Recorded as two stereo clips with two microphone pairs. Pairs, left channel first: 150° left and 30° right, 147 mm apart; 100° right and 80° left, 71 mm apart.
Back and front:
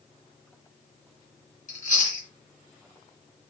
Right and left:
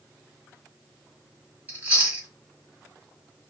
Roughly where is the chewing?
Behind left.